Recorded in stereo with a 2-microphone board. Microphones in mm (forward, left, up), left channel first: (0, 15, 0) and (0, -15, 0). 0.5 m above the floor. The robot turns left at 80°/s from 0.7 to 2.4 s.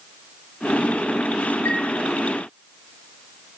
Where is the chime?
85° left, 0.9 m; by 1.8 s 70° left (ahead or behind), 0.9 m.